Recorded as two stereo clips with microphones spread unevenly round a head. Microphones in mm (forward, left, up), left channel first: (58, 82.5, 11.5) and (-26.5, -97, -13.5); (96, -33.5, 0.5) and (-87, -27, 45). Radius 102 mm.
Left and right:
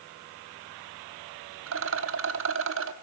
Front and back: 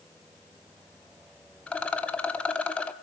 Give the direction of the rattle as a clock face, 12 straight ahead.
3 o'clock.